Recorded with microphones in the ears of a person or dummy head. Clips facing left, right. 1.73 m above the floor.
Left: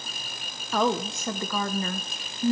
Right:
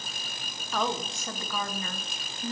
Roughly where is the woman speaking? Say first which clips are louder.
Left 6 dB; left.